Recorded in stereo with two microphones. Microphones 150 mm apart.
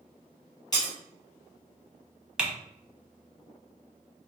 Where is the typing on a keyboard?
5° right (ahead or behind), 0.9 m.